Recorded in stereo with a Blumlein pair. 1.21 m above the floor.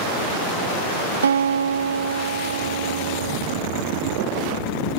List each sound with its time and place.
1.2 s a guitar: 70° right